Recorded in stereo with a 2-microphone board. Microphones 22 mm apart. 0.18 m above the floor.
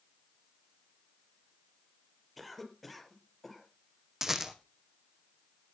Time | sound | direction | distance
2.4 | a cough | 5° left (ahead or behind) | 4 m
4.2 | a rattle | 20° right (ahead or behind) | 1.8 m